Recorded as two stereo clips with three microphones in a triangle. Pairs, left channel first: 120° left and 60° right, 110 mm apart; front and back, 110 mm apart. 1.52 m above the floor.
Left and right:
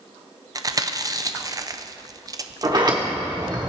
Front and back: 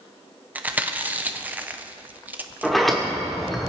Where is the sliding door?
90° right, 1.5 m.